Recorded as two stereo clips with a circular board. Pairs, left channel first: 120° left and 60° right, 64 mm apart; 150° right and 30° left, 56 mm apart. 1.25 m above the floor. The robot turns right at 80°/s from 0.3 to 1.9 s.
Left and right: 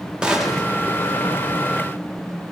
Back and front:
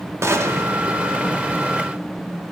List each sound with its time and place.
0.2 s a gunshot: 15° left, 1.0 m; by 0.7 s 50° left, 1.0 m